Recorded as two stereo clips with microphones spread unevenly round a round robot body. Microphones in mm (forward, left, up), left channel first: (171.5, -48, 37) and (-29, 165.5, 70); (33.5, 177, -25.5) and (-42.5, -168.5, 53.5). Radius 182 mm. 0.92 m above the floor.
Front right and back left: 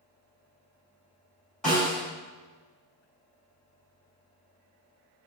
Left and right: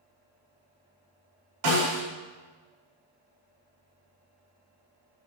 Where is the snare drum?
135° right, 3.5 m.